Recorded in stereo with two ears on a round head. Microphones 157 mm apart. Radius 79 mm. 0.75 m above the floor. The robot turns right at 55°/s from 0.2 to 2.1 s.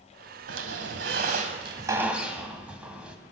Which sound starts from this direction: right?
A squeak, at 0.5 s.